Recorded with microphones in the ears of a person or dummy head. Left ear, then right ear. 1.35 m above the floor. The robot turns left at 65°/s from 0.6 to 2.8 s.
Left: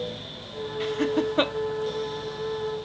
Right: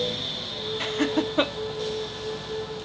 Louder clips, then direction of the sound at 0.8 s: Left 1 dB; 40° right (ahead or behind).